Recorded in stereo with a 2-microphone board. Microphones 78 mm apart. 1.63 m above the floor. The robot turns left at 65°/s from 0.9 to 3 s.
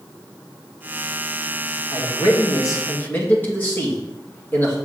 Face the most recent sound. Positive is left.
turn(degrees=25)